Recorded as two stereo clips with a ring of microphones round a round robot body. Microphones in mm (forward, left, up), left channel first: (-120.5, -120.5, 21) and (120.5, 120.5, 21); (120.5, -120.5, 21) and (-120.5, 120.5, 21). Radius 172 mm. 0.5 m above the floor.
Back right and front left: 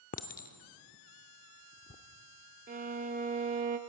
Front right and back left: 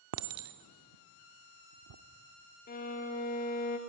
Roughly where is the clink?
Behind.